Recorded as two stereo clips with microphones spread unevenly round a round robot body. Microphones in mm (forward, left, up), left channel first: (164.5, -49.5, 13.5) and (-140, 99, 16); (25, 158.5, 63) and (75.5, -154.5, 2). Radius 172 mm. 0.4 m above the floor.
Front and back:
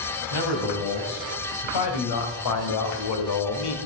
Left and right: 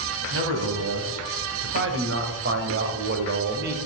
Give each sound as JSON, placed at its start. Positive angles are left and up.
{"t": 0.3, "sound": "a man speaking", "azimuth_deg": -40, "distance_m": 3.0}